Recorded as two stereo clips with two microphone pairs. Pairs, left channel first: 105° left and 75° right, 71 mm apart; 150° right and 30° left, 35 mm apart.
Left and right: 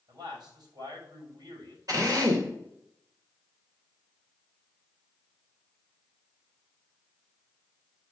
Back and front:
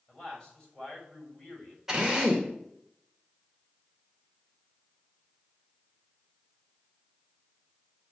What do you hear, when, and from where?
0.1 s a man speaking: 80° right, 6 m
1.9 s a drill: 50° right, 2.5 m